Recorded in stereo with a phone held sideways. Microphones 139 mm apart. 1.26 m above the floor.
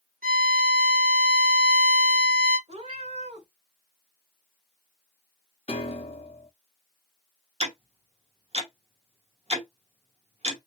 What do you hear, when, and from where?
0.2 s a violin: 85° right, 1.2 m
2.7 s a cat meowing: 50° right (ahead or behind), 1.4 m
5.7 s a piano: 45° left (ahead or behind), 0.9 m
7.6 s ticking: 50° right (ahead or behind), 1.1 m